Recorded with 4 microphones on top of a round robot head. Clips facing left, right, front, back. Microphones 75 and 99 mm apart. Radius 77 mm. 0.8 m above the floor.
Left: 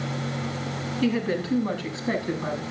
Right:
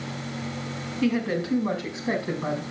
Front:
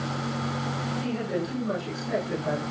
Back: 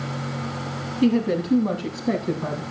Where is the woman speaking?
170° right, 8 m; by 2.6 s 160° right, 8.5 m.